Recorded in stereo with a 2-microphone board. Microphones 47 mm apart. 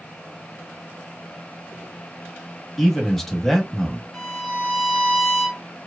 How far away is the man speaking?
About 1.0 m.